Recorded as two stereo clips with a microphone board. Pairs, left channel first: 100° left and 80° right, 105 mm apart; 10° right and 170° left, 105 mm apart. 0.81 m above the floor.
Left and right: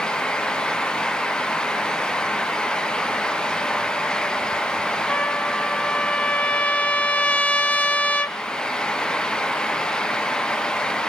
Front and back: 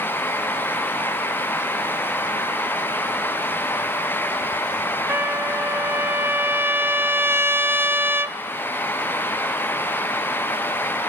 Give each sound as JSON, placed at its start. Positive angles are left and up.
{"t": 5.1, "sound": "a trumpet", "azimuth_deg": 150, "distance_m": 0.7}